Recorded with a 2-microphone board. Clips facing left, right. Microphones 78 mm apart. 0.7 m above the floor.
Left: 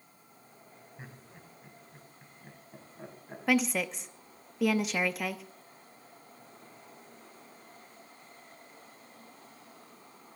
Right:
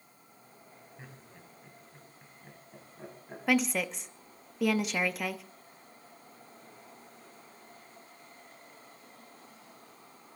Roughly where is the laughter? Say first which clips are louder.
Left 2 dB; centre.